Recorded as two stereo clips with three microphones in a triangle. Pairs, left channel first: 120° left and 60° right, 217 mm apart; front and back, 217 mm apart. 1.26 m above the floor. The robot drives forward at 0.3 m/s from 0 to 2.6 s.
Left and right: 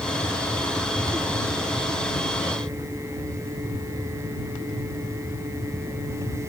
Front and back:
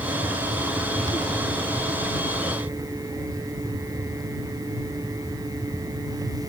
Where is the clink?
I don't hear a clink.